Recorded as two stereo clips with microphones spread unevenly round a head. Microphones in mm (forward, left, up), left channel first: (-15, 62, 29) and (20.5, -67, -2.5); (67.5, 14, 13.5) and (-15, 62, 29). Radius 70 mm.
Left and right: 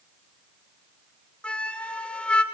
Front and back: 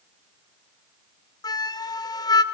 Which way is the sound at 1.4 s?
20° left.